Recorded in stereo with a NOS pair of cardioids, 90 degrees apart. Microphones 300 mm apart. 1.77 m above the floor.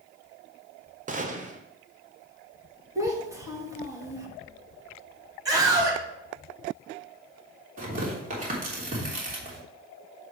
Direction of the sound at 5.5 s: 10° right.